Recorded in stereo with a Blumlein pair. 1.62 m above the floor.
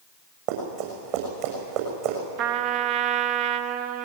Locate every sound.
0.5 s running footsteps: 45° right, 7 m
2.4 s a trumpet: 40° right, 0.9 m